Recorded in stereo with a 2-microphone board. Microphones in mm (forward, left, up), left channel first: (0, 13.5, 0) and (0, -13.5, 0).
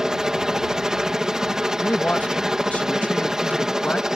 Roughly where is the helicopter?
Right.